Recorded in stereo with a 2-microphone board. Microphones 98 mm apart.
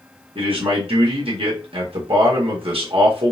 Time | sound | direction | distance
0.3 | a man speaking | 65° right (ahead or behind) | 1.6 m